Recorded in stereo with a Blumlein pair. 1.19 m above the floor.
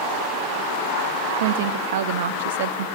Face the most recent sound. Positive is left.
turn(degrees=-55)